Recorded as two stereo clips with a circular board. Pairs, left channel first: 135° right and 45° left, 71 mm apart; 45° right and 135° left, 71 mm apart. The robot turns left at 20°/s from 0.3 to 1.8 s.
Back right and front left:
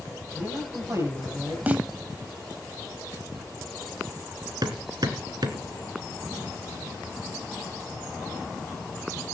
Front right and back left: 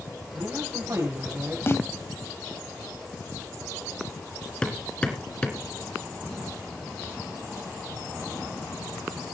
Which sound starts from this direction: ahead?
A snare drum, at 1.7 s.